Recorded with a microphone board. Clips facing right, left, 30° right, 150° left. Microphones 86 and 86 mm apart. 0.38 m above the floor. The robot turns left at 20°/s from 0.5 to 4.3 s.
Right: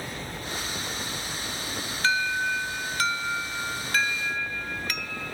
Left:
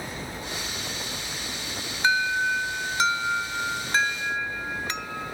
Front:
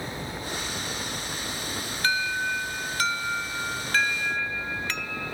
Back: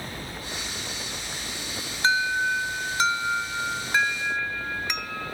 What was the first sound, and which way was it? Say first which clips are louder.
An alarm: left 2 dB, back 4 dB; 140° left.